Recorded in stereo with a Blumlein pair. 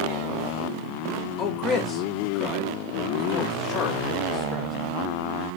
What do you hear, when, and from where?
1.4 s a man speaking: 30° left, 1.4 m